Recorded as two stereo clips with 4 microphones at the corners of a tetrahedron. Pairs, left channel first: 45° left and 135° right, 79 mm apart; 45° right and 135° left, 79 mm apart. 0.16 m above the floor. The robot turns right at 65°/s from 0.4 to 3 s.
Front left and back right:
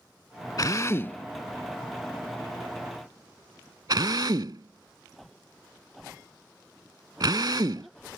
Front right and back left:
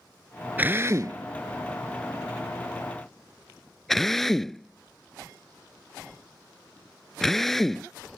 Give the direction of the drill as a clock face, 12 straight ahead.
10 o'clock.